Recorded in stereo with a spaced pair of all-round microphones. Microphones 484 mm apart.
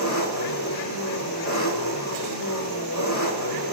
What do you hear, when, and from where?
0.0 s an engine running: 35° left (ahead or behind), 4.5 m